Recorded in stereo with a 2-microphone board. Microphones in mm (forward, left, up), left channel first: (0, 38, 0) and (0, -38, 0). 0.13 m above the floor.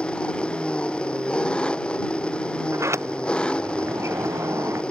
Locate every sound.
0.0 s an engine running: 15° left (ahead or behind)
2.7 s a sliding door: 40° right (ahead or behind)